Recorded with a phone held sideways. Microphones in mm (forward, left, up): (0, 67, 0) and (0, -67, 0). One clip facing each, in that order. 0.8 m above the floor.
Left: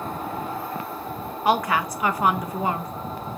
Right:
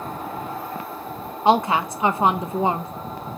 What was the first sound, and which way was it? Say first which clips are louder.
A woman speaking: right 4 dB; 25° right (ahead or behind).